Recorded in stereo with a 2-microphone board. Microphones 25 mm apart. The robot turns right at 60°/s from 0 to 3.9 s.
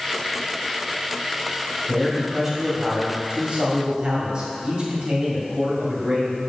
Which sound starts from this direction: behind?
A man speaking, at 1.9 s.